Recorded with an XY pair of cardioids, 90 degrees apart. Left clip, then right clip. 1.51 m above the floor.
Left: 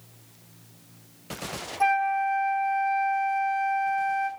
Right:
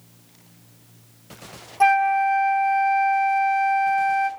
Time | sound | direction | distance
1.8 | a flute | 45° right | 0.5 m